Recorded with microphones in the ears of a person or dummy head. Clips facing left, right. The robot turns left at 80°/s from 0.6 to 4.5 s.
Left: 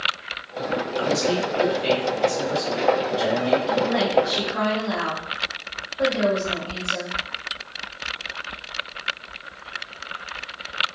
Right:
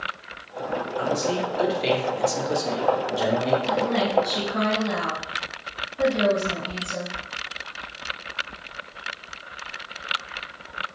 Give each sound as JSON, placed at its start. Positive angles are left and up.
{"t": 1.0, "sound": "a man speaking", "azimuth_deg": 40, "distance_m": 0.8}
{"t": 3.7, "sound": "a woman speaking", "azimuth_deg": -85, "distance_m": 1.4}